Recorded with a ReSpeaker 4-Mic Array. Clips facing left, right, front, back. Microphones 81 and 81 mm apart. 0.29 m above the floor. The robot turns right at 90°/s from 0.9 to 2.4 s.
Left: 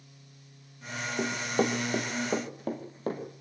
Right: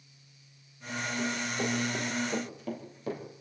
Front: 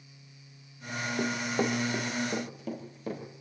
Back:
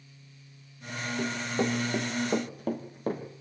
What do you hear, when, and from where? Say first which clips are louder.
1.2 s running footsteps: left 6 dB, even; 50° left, 3 m; by 3.2 s 135° left, 5.5 m